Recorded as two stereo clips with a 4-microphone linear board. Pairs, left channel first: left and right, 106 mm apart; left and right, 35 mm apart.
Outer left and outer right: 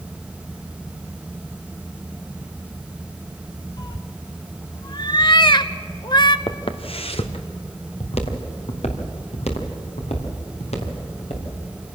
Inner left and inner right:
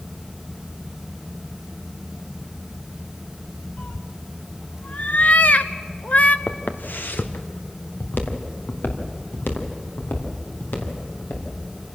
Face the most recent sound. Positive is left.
turn(degrees=80)